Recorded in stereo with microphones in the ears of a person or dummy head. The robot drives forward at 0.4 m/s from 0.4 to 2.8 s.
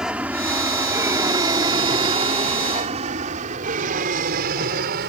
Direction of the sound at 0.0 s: 5° right (ahead or behind).